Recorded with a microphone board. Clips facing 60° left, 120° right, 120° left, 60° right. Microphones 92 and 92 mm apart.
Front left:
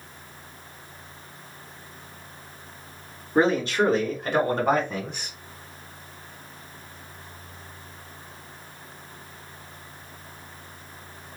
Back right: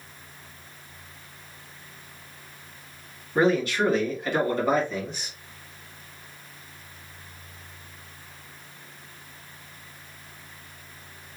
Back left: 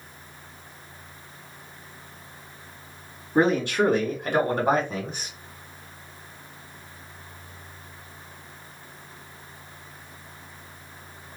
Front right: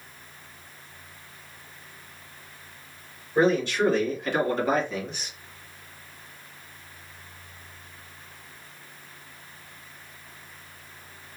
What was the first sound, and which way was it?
A man speaking, 120° left.